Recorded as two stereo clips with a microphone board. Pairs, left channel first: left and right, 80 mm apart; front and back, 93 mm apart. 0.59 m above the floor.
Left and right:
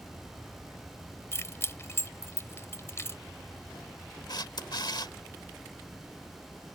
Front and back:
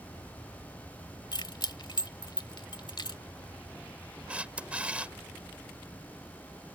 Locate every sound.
1.3 s keys jangling: 35° left
4.3 s a camera shutter: 105° left